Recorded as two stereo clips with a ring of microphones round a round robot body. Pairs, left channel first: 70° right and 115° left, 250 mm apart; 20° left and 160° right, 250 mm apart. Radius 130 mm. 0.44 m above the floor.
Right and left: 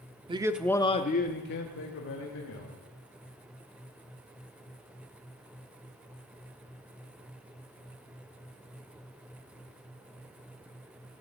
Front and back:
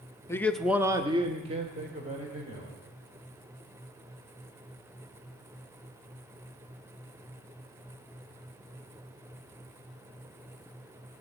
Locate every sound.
0.3 s a man speaking: 85° left, 0.9 m; by 2.7 s 95° right, 2.5 m